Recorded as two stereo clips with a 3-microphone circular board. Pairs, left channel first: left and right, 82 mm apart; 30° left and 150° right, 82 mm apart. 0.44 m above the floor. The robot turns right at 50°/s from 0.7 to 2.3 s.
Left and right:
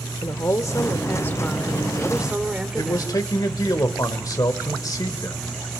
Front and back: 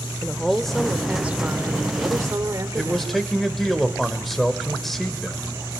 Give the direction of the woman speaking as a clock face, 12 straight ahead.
8 o'clock.